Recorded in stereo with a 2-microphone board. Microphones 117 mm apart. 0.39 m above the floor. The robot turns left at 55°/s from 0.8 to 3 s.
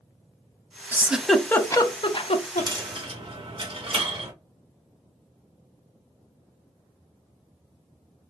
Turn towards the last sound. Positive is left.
turn(degrees=-55)  # may be behind; listen again after turning